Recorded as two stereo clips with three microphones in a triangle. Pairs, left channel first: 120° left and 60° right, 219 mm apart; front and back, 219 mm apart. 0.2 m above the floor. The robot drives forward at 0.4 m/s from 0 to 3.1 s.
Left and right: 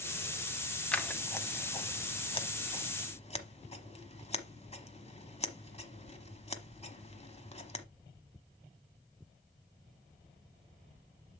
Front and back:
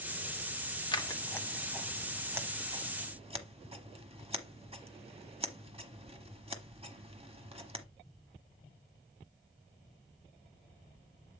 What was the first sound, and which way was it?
Scissors, 40° left.